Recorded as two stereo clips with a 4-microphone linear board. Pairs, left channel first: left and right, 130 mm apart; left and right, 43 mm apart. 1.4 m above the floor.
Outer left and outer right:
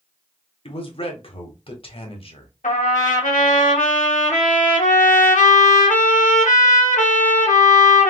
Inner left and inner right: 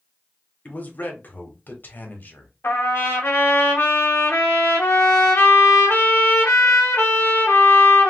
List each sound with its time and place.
0.7 s a man speaking: 45° left (ahead or behind), 1.0 m
2.6 s a trumpet: 85° left, 1.2 m